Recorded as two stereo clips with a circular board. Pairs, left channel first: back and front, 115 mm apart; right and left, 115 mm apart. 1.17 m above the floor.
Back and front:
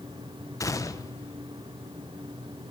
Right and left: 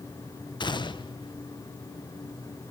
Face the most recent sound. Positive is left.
turn(degrees=-125)